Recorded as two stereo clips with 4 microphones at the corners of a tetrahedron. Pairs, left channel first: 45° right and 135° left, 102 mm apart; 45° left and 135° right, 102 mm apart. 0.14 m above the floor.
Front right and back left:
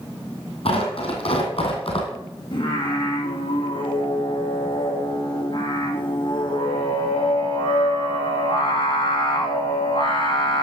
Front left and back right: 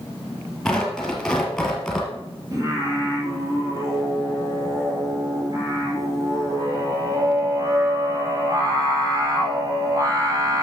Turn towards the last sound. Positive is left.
turn(degrees=-80)